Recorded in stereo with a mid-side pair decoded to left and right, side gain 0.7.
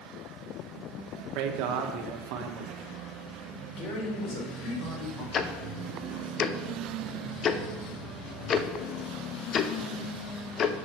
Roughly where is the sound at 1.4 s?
Right.